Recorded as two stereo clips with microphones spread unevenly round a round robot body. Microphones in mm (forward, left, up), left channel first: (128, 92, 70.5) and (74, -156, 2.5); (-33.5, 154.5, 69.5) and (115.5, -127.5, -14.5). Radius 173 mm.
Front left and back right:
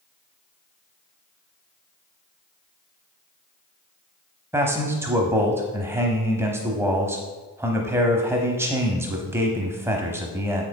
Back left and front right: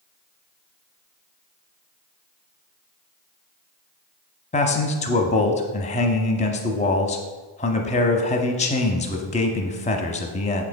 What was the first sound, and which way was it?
A man speaking, 165° right.